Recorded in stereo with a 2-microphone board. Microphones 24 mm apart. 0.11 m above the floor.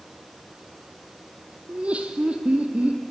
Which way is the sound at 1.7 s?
60° right (ahead or behind).